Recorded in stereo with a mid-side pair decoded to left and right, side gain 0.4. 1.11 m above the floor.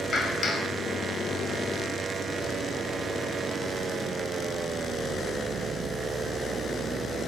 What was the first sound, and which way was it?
A clap, 35° left.